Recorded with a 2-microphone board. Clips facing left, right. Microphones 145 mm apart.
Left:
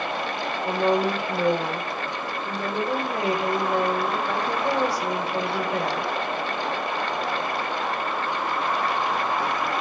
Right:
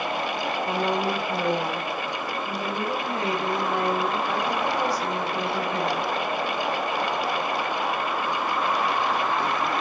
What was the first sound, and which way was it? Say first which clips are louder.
A woman speaking: left 5 dB; 80° left.